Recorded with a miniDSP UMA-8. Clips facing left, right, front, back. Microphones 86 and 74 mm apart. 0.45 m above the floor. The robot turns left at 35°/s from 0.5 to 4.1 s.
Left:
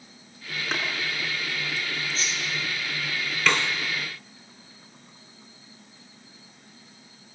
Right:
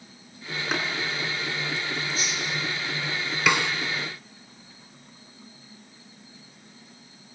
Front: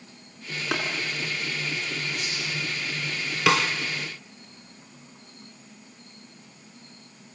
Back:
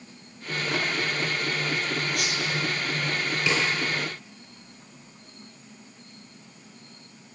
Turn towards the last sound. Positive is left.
turn(degrees=-30)